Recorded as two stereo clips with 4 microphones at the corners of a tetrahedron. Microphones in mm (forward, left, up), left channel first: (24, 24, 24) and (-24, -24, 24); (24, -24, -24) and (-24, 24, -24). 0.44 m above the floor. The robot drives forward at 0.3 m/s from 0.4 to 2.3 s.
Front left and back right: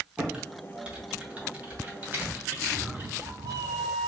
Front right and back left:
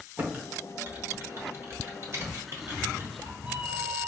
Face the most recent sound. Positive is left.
turn(degrees=-155)